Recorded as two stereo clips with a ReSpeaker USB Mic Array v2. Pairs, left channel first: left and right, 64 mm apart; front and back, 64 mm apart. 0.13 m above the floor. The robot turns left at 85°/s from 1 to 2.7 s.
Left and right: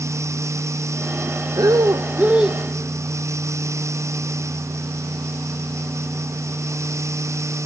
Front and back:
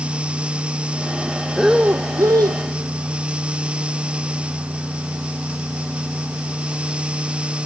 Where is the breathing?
90° right, 0.7 m; by 2.6 s straight behind, 0.7 m.